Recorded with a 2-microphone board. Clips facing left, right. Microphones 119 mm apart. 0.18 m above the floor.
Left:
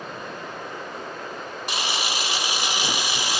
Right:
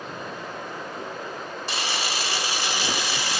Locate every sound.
1.7 s a camera shutter: 15° left (ahead or behind), 0.7 m